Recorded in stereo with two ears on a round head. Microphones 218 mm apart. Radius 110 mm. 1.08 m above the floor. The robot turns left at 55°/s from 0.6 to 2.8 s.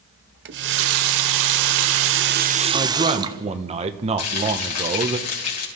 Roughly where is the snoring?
I don't hear snoring.